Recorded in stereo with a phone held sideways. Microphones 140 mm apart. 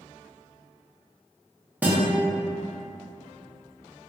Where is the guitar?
10° right (ahead or behind), 0.8 m.